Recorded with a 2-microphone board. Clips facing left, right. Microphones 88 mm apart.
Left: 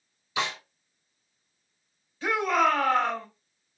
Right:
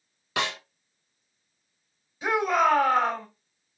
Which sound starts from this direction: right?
A snare drum, at 0.4 s.